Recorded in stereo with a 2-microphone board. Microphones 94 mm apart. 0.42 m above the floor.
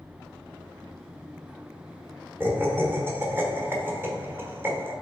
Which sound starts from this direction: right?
Laughter, at 2.4 s.